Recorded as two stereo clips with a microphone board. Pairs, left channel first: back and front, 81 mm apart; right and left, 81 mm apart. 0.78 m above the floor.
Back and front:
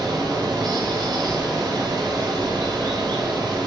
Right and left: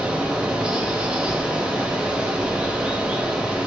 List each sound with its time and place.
0.0 s running water: 15° left, 0.7 m